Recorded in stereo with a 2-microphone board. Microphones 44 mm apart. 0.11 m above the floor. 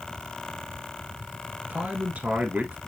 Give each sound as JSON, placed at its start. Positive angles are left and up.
{"t": 1.7, "sound": "a man speaking", "side_deg": -35, "distance_m": 1.5}